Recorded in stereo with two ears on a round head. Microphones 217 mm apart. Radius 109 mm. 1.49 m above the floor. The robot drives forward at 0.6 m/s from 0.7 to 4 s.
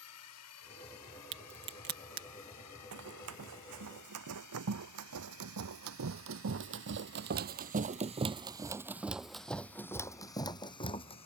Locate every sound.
0.0 s a drone: 70° left (ahead or behind); by 11.3 s 85° left
1.3 s a crack: 50° right (ahead or behind); by 2.3 s 40° right (ahead or behind)
2.9 s running footsteps: 65° right (ahead or behind); by 11.3 s 25° left (ahead or behind)